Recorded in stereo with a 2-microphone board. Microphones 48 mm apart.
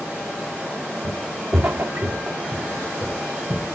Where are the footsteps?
70° right (ahead or behind), 1.6 m; by 3.8 s 60° right (ahead or behind), 3.5 m.